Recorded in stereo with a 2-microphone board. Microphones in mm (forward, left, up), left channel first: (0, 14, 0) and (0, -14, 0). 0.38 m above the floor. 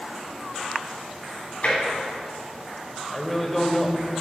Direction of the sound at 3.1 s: 10° left (ahead or behind).